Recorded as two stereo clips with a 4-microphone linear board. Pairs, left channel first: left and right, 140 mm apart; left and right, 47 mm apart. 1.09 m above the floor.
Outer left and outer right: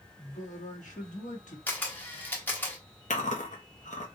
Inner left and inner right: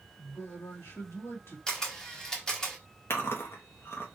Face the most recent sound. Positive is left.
turn(degrees=60)  # may be behind; listen again after turning